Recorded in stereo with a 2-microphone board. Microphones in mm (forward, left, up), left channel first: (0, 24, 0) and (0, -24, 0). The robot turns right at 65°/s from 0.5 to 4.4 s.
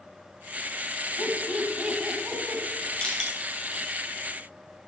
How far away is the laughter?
About 2.5 m.